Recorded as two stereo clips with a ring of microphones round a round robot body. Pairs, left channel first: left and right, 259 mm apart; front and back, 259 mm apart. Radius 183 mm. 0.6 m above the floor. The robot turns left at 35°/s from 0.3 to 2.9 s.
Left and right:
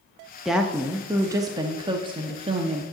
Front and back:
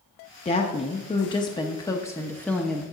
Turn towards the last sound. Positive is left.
turn(degrees=-90)